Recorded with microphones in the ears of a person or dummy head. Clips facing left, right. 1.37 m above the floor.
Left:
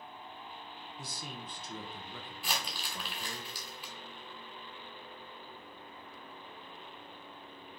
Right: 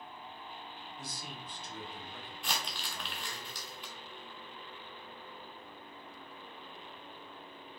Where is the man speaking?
75° left (ahead or behind), 0.7 m.